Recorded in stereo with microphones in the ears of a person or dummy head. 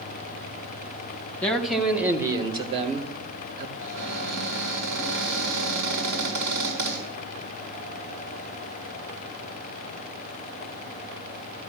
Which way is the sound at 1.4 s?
5° left (ahead or behind).